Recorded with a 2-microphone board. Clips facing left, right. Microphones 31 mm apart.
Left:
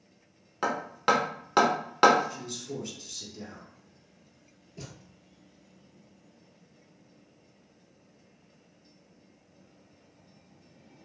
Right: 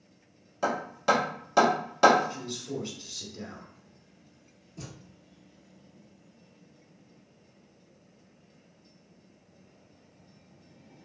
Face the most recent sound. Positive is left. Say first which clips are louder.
# right 1 dB
turn(degrees=15)  # may be behind; listen again after turning